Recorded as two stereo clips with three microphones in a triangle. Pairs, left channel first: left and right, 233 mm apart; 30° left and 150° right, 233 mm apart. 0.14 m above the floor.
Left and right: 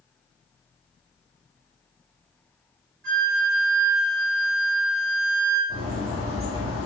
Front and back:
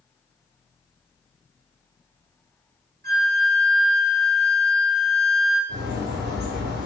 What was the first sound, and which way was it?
A flute, 110° right.